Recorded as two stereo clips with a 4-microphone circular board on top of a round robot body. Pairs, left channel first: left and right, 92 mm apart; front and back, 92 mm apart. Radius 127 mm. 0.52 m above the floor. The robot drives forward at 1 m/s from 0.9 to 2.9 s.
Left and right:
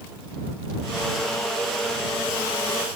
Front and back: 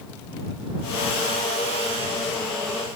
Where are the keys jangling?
No keys jangling in this recording.